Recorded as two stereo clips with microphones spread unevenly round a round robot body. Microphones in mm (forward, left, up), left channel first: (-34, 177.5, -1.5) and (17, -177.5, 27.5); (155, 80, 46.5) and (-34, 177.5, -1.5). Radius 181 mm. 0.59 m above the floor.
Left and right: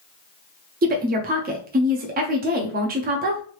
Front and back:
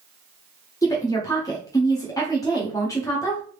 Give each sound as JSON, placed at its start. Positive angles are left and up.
{"t": 0.8, "sound": "a woman speaking", "azimuth_deg": -110, "distance_m": 0.6}